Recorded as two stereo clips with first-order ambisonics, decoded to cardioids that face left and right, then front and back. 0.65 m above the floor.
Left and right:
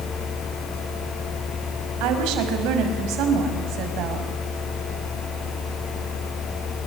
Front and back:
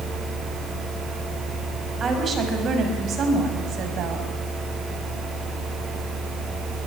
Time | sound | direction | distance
2.0 | a woman speaking | 110° right | 5 m